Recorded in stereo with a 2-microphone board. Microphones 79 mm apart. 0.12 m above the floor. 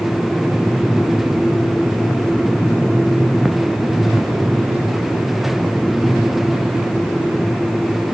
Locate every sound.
Only background noise.